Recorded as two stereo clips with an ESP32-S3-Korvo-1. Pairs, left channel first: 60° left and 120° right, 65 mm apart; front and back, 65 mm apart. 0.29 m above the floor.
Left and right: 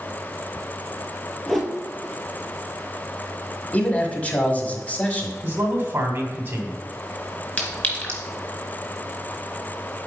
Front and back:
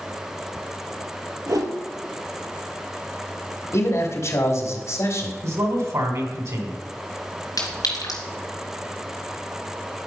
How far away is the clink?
About 2.5 m.